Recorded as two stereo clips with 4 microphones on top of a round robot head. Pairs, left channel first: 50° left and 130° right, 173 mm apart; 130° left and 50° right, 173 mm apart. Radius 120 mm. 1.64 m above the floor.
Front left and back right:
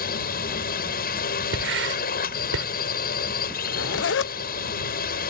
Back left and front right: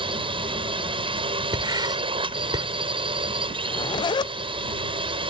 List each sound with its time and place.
0.0 s a drone: 10° left
1.5 s writing: 120° right
3.7 s a zipper: 65° left